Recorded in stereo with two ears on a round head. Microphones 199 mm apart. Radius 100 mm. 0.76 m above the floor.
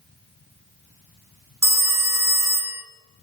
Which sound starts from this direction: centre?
A phone ringing, at 1.6 s.